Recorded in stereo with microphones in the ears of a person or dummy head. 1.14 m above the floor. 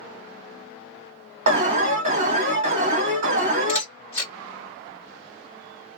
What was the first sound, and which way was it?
An alarm, 45° right (ahead or behind).